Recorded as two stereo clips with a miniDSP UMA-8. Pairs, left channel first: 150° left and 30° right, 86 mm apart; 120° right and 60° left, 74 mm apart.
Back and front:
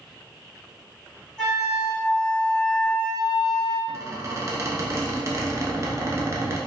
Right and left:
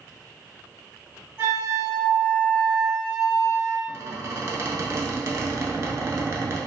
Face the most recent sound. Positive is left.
turn(degrees=15)